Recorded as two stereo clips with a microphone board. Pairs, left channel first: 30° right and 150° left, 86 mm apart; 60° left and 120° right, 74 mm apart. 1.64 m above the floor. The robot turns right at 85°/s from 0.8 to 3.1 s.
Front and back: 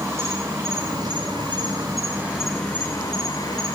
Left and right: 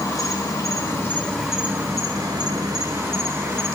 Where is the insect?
100° left, 3.5 m; by 3.8 s 65° right, 3.5 m.